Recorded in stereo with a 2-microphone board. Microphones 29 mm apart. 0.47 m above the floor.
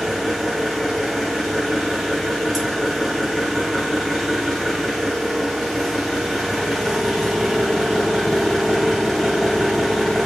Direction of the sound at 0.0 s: 10° right (ahead or behind).